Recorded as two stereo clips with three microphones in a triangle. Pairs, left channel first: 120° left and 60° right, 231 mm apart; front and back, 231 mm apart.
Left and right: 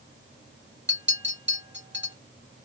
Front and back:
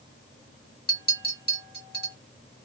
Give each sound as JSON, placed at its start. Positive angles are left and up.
{"t": 0.9, "sound": "a clink", "azimuth_deg": -35, "distance_m": 1.3}